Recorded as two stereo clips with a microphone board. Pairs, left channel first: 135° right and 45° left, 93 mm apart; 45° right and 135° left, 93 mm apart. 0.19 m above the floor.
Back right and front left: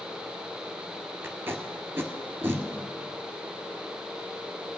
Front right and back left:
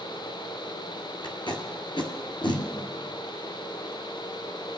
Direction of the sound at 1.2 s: 20° right.